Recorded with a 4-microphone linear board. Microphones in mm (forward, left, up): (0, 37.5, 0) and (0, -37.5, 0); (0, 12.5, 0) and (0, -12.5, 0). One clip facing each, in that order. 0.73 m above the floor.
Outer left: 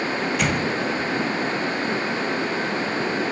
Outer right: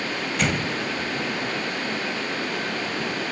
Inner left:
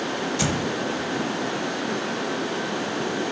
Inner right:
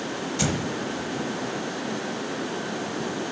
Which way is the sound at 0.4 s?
Centre (ahead or behind).